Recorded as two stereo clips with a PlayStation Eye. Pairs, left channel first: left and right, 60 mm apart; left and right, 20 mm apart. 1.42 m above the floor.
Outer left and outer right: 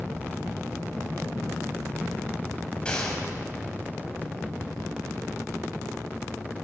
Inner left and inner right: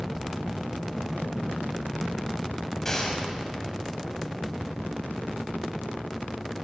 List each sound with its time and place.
2.9 s a gunshot: 20° left (ahead or behind), 8.5 m